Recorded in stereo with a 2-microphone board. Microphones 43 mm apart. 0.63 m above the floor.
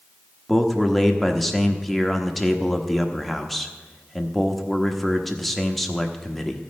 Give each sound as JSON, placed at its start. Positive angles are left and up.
{"t": 0.5, "sound": "a man speaking", "side_deg": 5, "distance_m": 1.1}